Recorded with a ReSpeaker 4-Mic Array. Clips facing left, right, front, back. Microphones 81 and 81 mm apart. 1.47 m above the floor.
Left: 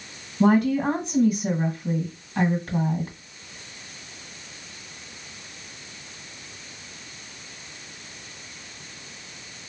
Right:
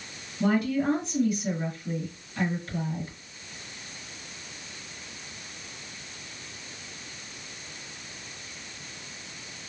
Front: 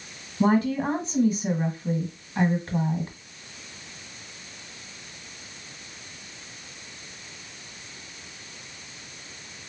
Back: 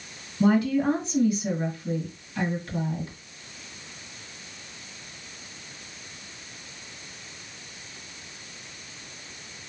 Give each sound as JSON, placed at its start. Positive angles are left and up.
{"t": 0.4, "sound": "a woman speaking", "azimuth_deg": 60, "distance_m": 1.4}